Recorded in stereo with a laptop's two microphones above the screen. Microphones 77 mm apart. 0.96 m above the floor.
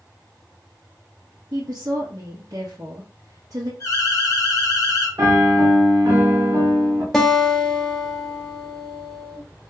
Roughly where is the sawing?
No sawing in this recording.